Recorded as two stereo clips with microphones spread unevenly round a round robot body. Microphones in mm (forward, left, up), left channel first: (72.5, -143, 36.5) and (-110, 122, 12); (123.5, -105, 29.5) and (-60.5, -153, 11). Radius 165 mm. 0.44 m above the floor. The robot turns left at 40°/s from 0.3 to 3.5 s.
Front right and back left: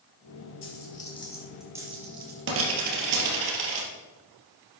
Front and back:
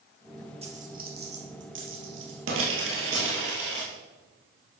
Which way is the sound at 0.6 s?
105° right.